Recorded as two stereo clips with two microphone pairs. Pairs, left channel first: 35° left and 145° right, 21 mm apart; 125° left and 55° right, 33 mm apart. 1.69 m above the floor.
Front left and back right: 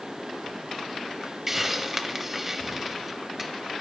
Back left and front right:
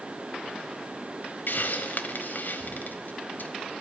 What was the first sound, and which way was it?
A hiss, 135° left.